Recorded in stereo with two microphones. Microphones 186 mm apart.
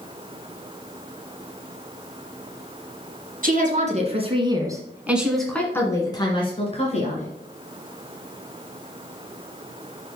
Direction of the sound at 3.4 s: 45° right (ahead or behind).